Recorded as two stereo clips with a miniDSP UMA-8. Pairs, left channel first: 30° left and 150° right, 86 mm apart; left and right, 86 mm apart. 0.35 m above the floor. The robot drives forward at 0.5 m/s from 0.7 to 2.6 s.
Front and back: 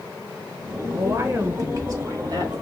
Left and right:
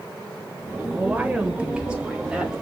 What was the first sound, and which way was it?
A woman speaking, 145° right.